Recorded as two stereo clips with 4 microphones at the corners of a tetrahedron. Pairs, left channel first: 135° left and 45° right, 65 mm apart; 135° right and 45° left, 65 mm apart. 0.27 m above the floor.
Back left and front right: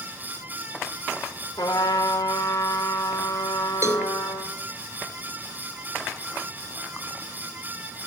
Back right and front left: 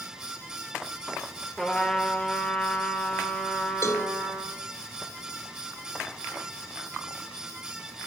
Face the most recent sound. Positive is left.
turn(degrees=-85)